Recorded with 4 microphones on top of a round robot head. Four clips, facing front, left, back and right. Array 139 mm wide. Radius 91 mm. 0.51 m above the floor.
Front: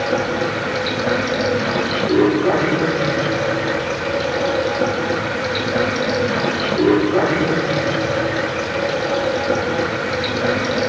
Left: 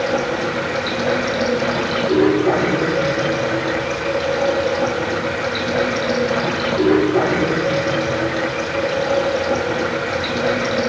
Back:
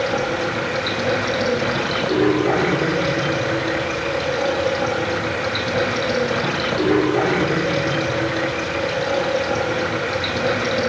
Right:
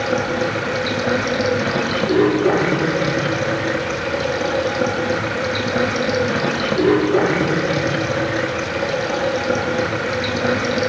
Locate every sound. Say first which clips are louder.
0.0 s running water: even, front 2 dB; 50° right, 5 m